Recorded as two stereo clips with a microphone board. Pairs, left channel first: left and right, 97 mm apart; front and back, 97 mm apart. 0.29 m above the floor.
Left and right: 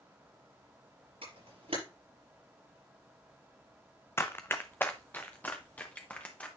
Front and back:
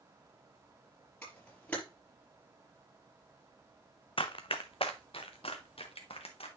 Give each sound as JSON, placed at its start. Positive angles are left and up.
{"t": 1.2, "sound": "a camera shutter", "azimuth_deg": -75, "distance_m": 5.0}
{"t": 4.2, "sound": "running footsteps", "azimuth_deg": 25, "distance_m": 0.8}